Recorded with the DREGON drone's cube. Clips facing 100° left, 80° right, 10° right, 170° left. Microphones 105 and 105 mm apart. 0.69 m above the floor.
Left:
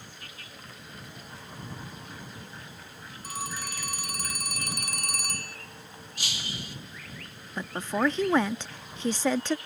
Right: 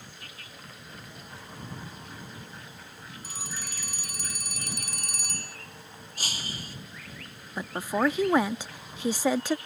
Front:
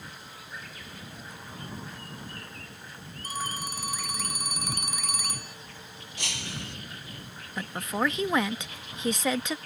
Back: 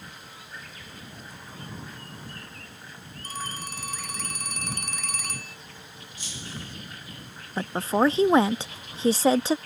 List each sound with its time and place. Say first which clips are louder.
3.2 s a phone ringing: left 7 dB, front 2 dB; 70° left
6.2 s breaking glass: even, front 2 dB; 30° right
7.6 s a woman speaking: right 1 dB, back 7 dB; 150° right